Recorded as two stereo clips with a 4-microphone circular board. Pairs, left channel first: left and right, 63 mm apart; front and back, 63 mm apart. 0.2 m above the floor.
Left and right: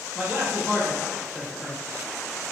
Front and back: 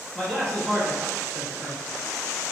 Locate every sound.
0.1 s a man speaking: 45° right, 1.3 m